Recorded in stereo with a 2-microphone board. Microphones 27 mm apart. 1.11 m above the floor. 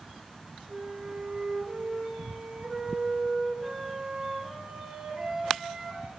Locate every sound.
0.7 s a flute: 50° right (ahead or behind), 1.0 m